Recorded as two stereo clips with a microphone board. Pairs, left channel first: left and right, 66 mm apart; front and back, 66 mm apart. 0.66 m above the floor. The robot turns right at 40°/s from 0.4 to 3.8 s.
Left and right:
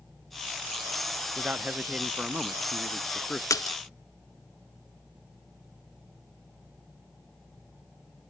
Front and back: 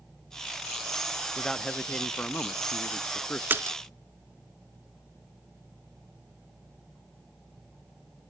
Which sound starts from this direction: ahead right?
A man speaking, at 1.4 s.